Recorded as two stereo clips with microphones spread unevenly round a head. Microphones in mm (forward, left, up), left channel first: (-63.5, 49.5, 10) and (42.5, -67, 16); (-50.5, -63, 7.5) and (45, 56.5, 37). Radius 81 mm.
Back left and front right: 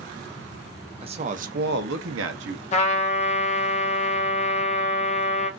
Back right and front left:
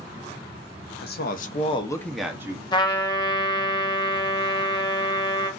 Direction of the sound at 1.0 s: 105° right.